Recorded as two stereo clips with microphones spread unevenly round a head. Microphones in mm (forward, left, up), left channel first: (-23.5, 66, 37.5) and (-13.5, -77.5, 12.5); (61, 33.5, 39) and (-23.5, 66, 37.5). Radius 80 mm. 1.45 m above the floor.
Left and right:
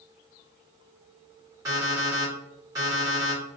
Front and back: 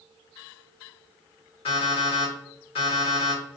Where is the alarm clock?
15° right, 1.2 m.